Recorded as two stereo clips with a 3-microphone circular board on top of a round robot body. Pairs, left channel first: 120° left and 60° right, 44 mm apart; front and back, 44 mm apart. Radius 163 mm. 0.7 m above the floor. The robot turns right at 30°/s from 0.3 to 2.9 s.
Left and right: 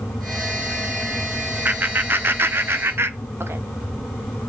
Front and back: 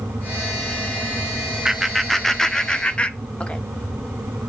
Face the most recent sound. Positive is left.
turn(degrees=-65)